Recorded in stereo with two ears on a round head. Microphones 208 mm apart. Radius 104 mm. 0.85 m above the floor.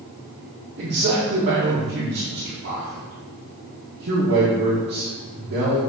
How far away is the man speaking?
About 1.5 m.